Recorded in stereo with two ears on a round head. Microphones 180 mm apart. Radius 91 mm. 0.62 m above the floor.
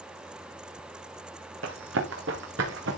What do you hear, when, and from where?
1.6 s running footsteps: 65° right (ahead or behind), 3.5 m